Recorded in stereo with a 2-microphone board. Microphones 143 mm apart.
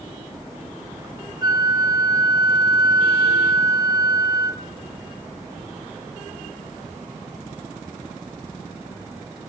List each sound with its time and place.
1.4 s a flute: 30° right (ahead or behind), 0.6 m